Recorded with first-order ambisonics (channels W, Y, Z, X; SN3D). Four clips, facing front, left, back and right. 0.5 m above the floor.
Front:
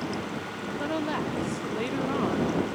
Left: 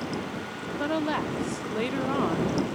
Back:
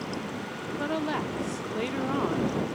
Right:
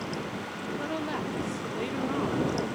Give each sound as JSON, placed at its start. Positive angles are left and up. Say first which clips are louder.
{"t": 0.8, "sound": "a woman speaking", "louder": "left 7 dB, even", "azimuth_deg": 95}